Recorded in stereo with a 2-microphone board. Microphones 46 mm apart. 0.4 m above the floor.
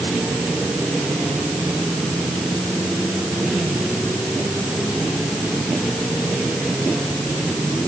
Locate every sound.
Only background noise.